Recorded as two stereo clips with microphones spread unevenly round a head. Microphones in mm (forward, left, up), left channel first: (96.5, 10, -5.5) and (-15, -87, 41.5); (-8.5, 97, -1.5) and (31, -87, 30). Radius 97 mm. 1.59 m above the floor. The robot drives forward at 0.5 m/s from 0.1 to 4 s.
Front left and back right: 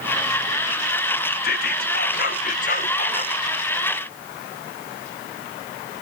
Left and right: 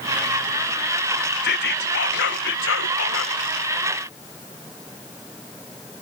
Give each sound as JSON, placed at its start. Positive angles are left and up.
{"t": 1.4, "sound": "whispering", "azimuth_deg": 65}